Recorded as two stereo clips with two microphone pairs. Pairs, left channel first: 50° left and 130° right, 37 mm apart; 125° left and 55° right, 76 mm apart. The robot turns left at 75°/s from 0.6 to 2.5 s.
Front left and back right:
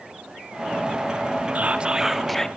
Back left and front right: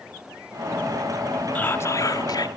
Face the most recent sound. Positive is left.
turn(degrees=120)